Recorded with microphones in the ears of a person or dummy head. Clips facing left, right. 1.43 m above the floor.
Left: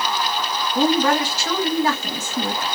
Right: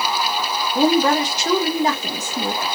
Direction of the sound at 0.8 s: 20° right (ahead or behind).